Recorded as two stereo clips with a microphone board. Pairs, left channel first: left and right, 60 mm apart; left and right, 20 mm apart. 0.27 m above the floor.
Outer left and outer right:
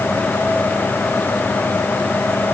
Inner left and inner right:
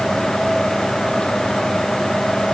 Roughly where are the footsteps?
No footsteps in this recording.